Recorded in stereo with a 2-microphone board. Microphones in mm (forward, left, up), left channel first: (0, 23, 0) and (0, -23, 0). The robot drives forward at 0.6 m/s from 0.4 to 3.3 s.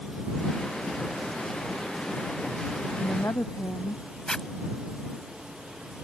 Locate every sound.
3.0 s a woman speaking: 80° left
4.3 s a zipper: 15° left (ahead or behind)